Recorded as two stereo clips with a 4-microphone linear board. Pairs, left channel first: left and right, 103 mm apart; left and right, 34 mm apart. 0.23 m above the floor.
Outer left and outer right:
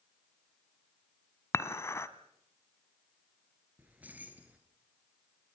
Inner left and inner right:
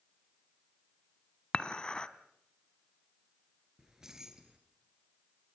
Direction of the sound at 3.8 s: 15° right (ahead or behind).